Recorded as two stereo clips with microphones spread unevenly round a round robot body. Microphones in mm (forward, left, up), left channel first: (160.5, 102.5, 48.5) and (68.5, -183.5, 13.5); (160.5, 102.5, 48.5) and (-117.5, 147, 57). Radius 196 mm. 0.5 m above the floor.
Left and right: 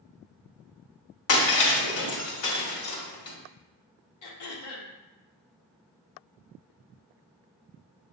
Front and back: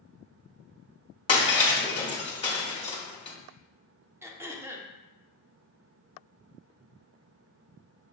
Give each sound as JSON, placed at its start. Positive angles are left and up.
{"t": 1.3, "sound": "breaking glass", "azimuth_deg": 65, "distance_m": 1.8}
{"t": 4.2, "sound": "throat clearing", "azimuth_deg": 90, "distance_m": 0.8}